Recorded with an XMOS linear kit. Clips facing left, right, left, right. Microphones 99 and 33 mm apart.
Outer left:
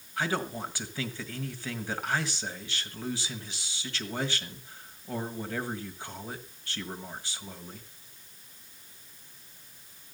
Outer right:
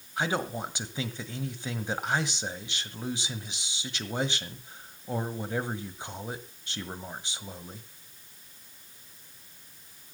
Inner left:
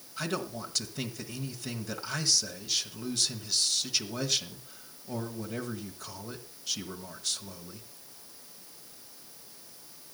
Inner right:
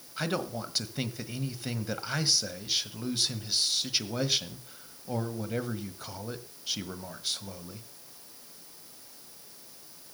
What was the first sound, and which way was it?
A man speaking, 20° right (ahead or behind).